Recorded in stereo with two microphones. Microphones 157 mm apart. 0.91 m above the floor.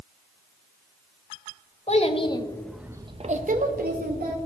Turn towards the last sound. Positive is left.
turn(degrees=-75)  # may be behind; listen again after turning